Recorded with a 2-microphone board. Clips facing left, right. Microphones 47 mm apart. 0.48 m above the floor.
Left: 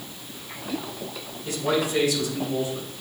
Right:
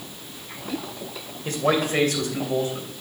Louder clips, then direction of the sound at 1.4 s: Right 2 dB; 50° right (ahead or behind).